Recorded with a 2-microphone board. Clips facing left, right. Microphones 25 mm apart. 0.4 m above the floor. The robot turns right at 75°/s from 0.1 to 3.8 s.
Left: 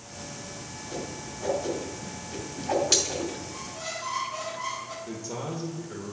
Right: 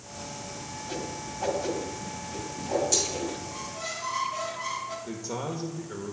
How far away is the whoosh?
About 2.5 m.